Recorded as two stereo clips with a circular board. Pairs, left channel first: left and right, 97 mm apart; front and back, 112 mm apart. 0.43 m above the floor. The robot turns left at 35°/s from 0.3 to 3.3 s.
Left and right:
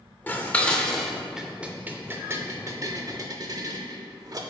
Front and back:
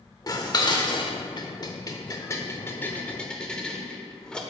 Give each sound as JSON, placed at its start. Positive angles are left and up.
{"t": 0.3, "sound": "dishes clattering", "azimuth_deg": 30, "distance_m": 0.6}